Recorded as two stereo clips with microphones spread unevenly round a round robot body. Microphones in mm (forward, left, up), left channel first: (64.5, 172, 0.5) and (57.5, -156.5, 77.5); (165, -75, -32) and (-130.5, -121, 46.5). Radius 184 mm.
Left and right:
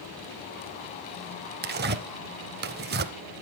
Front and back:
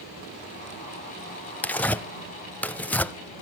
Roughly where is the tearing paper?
Right.